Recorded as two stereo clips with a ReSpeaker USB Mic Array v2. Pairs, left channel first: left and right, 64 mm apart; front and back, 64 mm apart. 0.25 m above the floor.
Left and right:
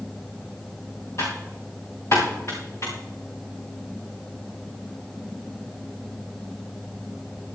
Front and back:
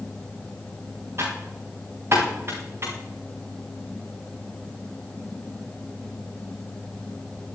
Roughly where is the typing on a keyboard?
Behind left.